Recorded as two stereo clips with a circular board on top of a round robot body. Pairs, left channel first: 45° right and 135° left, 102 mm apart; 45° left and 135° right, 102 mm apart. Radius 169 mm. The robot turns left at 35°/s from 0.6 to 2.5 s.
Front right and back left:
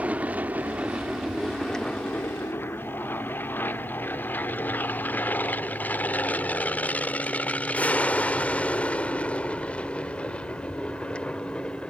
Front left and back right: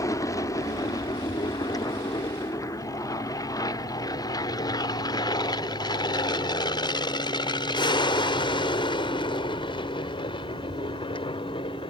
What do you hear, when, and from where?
0.0 s an aircraft: 65° left; by 11.9 s 35° left